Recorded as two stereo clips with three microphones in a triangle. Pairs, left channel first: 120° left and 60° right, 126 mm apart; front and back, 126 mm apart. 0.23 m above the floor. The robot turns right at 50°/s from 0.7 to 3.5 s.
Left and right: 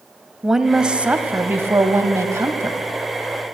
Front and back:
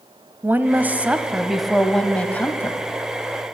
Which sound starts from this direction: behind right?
A woman speaking, at 0.4 s.